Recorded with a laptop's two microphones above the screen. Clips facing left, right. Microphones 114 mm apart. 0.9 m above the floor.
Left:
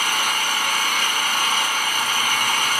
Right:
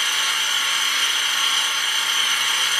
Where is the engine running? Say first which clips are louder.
Left 4 dB; 50° left (ahead or behind), 3 m.